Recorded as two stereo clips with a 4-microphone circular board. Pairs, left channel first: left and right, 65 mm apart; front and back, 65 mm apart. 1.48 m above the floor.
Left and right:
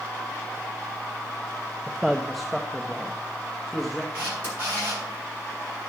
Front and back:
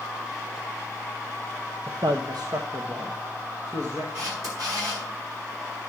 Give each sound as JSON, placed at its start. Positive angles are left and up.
{"t": 1.9, "sound": "a man speaking", "azimuth_deg": 180, "distance_m": 0.7}
{"t": 4.1, "sound": "a camera shutter", "azimuth_deg": -155, "distance_m": 8.0}